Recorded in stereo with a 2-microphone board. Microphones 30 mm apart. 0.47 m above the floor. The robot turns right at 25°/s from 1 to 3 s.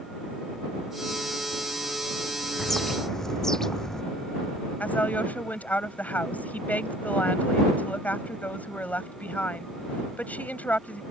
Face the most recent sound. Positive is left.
turn(degrees=65)  # may be behind; listen again after turning